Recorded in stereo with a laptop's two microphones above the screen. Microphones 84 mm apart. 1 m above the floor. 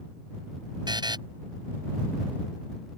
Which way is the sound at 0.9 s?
60° right (ahead or behind).